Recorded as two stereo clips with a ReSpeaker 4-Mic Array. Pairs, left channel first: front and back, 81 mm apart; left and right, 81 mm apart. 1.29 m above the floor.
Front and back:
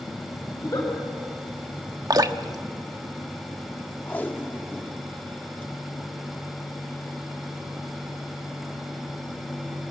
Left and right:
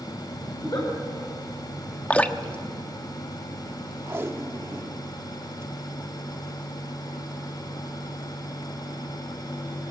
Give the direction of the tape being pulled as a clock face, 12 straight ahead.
2 o'clock.